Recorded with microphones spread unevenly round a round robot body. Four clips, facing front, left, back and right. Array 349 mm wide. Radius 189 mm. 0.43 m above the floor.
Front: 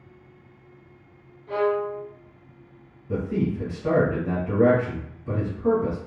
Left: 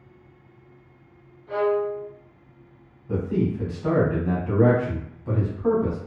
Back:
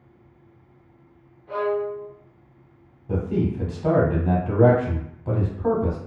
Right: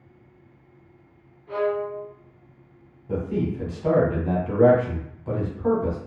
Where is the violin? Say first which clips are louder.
Left 2 dB, front 1 dB; 10° right, 1.3 m.